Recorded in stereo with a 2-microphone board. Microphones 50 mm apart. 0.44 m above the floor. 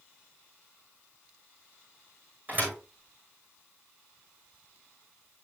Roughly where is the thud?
Right.